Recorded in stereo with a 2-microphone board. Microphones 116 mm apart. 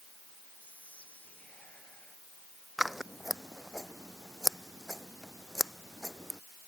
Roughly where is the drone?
No drone in this recording.